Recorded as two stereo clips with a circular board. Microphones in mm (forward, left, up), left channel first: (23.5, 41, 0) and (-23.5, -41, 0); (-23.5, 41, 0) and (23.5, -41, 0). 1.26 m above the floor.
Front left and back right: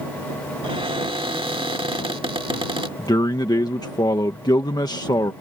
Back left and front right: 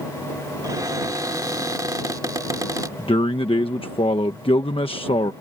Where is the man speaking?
105° left.